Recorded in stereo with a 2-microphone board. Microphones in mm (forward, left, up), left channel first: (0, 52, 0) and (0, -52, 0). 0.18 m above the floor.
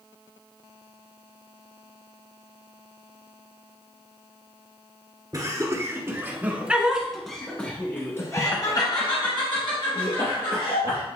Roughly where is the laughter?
Right.